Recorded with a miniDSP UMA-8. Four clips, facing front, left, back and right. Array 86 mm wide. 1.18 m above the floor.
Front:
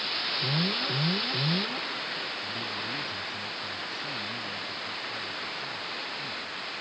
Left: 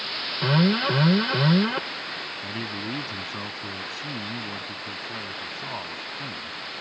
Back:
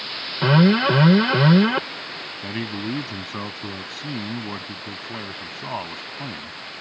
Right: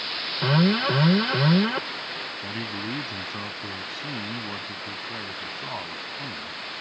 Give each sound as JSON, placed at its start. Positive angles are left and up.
{"t": 0.4, "sound": "an alarm", "azimuth_deg": -175}
{"t": 2.4, "sound": "a man speaking", "azimuth_deg": -175}